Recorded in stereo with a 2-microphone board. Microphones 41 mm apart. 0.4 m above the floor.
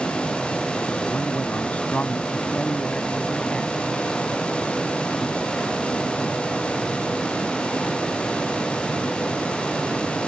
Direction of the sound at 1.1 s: 45° left (ahead or behind).